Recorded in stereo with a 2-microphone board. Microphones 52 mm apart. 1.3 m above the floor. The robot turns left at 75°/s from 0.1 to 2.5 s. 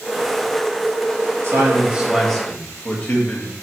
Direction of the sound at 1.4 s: 125° right.